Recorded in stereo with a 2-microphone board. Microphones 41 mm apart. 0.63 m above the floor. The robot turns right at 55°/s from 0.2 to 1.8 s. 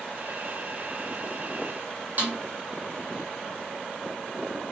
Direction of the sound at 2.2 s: 45° right (ahead or behind).